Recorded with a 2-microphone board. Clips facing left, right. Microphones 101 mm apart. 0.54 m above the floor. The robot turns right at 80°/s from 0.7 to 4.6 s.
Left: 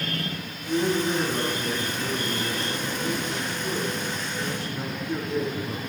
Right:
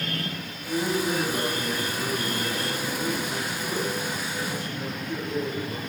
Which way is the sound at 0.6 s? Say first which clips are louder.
Left 2 dB; 115° left.